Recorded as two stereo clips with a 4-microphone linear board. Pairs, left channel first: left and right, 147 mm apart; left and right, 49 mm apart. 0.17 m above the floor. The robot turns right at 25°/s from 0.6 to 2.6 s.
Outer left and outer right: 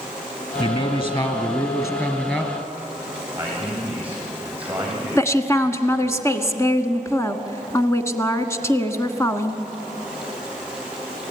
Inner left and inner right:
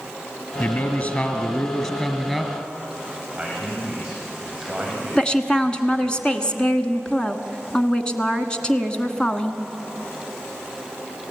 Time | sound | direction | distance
0.6 | a man speaking | 125° left | 2 m
3.4 | a man speaking | 10° right (ahead or behind) | 9.5 m
5.2 | a woman speaking | 20° left (ahead or behind) | 1.4 m